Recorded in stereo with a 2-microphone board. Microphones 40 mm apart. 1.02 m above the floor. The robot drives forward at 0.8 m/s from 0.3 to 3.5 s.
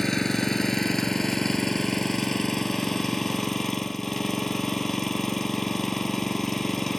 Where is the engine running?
10° left (ahead or behind); by 7.0 s 5° left (ahead or behind).